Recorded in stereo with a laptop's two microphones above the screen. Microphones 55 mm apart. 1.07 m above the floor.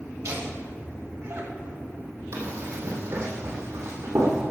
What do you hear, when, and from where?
0.2 s laughter: 65° right (ahead or behind), 2.5 m
2.3 s running footsteps: 60° right (ahead or behind), 2.5 m; by 4.4 s 75° right (ahead or behind), 3.5 m